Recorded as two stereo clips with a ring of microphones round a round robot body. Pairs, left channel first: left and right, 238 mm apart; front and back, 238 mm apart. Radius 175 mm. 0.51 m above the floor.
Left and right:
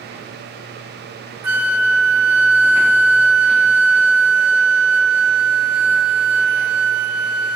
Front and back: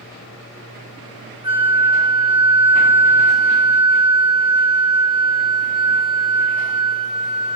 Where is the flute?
105° right, 0.6 m.